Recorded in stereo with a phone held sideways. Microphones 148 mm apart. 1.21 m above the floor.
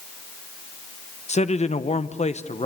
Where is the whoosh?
No whoosh in this recording.